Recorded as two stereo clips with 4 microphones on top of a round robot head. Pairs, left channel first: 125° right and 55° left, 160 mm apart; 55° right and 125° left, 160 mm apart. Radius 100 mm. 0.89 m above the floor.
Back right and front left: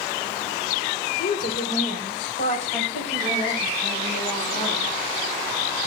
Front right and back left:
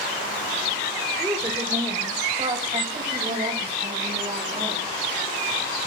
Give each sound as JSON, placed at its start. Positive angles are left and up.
{"t": 1.2, "sound": "a woman speaking", "azimuth_deg": -160, "distance_m": 3.5}